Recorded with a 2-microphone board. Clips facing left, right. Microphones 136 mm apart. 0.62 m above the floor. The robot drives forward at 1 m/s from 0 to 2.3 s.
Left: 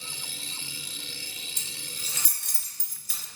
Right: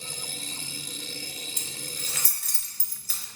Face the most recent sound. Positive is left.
turn(degrees=-75)  # may be behind; listen again after turning